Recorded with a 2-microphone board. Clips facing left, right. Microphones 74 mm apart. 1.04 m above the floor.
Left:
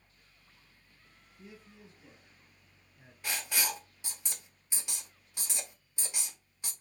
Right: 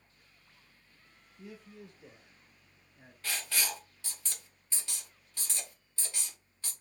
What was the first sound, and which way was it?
A man speaking, 65° right (ahead or behind).